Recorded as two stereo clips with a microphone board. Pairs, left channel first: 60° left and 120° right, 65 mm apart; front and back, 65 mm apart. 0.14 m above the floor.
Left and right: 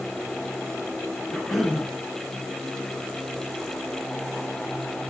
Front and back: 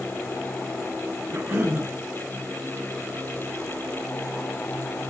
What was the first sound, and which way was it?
A cough, 145° left.